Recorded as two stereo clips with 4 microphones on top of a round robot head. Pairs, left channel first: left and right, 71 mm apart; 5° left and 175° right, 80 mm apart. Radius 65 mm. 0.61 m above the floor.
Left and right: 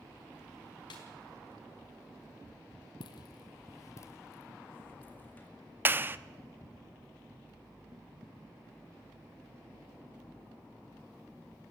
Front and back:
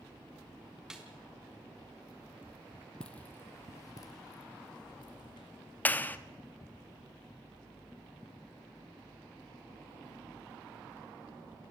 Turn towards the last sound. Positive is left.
turn(degrees=-50)